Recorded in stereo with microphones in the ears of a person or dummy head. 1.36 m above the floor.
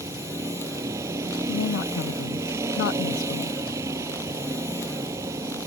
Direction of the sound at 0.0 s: 15° right (ahead or behind).